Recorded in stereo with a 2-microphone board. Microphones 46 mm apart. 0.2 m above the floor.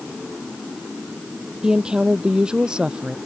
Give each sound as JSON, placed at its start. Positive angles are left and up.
{"t": 1.6, "sound": "a woman speaking", "side_deg": -20}